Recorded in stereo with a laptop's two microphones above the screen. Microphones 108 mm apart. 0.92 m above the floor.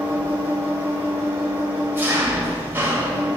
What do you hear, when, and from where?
0.0 s an engine running: 20° right (ahead or behind), 1.3 m